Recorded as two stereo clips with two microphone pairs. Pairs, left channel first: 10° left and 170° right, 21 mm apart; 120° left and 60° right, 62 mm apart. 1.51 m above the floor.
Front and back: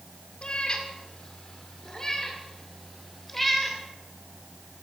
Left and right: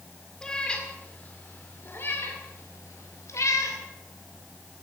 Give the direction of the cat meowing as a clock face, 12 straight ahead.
11 o'clock.